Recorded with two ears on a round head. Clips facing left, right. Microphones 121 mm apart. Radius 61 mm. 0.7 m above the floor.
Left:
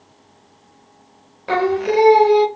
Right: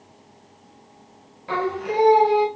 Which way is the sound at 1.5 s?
70° left (ahead or behind).